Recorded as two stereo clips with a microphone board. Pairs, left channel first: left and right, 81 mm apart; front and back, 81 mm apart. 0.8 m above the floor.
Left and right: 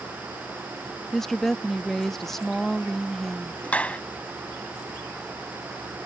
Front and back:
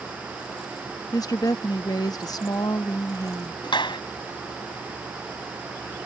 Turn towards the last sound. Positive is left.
turn(degrees=15)